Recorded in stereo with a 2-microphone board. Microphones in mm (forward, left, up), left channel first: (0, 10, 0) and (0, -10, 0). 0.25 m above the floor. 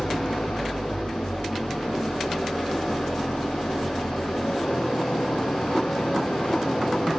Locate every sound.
0.0 s an engine running: 80° left, 8.5 m